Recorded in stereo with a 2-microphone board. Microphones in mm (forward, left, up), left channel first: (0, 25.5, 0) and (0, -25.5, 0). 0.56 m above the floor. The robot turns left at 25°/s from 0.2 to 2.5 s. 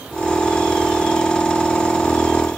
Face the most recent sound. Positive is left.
No sound to turn to.